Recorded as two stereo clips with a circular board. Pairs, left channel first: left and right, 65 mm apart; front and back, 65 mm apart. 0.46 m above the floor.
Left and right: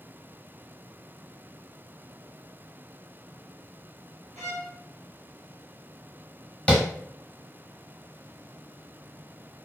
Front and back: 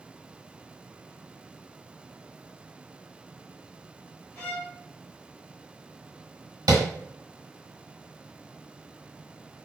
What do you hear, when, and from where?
4.3 s a violin: 50° left, 1.1 m
6.7 s tapping: 160° left, 1.0 m